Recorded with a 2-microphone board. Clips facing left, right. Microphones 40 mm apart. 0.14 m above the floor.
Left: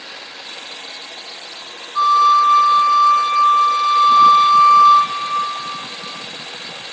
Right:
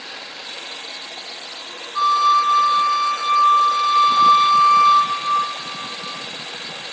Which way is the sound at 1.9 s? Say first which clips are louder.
Left 3 dB; 5° left (ahead or behind).